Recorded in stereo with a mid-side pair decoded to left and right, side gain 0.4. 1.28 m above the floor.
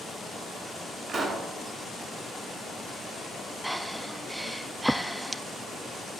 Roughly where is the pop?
Ahead right.